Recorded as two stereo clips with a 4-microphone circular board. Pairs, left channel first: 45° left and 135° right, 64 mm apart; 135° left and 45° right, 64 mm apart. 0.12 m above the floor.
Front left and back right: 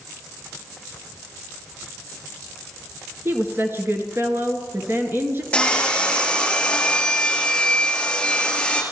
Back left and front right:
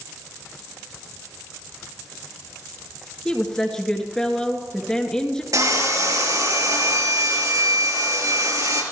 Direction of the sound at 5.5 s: 25° right.